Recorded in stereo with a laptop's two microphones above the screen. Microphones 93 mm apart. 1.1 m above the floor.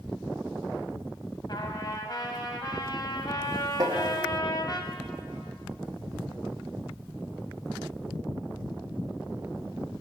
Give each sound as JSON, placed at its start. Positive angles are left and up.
{"t": 1.5, "sound": "a trumpet", "side_deg": 50, "distance_m": 1.6}
{"t": 3.8, "sound": "tapping", "side_deg": -45, "distance_m": 1.9}